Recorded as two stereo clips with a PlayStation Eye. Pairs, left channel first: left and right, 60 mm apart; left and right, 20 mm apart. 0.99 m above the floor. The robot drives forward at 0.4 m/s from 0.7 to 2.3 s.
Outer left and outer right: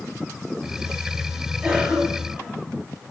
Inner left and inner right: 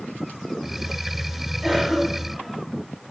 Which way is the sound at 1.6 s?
15° right (ahead or behind).